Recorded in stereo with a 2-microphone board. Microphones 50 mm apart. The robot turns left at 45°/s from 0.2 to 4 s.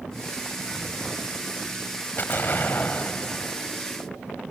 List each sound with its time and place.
2.2 s an explosion: 90° left, 1.7 m; by 3.8 s 20° left, 1.7 m